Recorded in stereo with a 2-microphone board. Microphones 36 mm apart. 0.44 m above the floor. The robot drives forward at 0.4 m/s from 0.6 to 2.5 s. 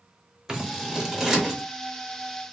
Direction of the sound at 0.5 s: 20° right (ahead or behind).